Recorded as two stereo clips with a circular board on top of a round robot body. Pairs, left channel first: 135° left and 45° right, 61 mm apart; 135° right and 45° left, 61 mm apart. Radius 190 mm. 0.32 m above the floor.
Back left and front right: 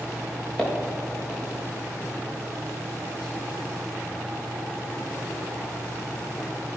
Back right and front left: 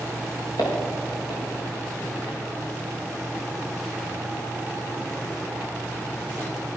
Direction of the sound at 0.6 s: 145° right.